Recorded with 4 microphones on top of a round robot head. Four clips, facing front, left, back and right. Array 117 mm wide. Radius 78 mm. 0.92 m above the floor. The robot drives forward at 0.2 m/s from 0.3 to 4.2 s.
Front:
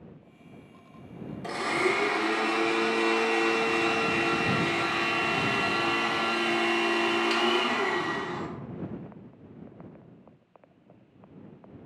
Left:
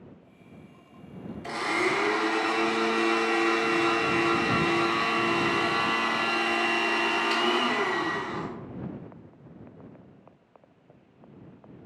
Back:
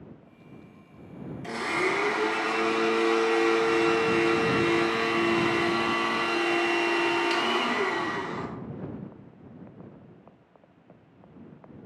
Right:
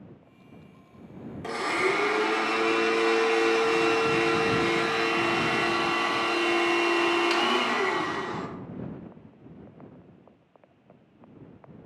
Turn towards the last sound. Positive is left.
turn(degrees=-90)